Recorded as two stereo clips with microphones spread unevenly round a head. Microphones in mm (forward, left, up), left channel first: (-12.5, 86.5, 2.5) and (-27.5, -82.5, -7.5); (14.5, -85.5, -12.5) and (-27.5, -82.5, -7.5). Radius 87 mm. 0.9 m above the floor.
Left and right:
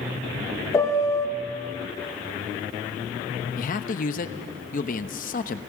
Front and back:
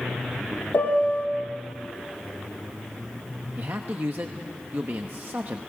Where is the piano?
10° left, 1.2 m.